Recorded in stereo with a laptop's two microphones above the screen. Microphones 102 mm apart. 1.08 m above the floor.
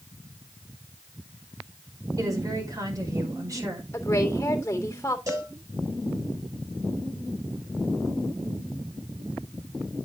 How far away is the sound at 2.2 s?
About 5 m.